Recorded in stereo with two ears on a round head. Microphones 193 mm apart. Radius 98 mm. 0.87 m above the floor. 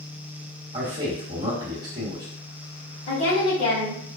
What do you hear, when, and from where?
0.7 s a man speaking: 20° right (ahead or behind), 1.5 m
3.1 s a woman speaking: 75° left (ahead or behind), 1.9 m